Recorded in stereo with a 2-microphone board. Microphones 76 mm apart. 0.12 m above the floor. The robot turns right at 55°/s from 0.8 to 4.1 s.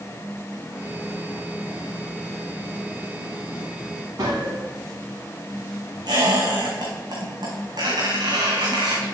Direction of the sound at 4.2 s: 75° right (ahead or behind).